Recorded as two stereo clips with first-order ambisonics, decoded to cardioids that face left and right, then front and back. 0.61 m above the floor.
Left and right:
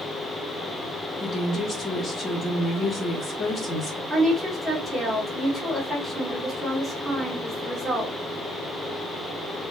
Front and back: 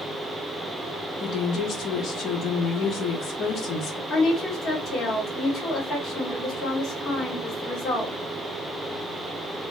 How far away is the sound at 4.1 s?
About 1.2 m.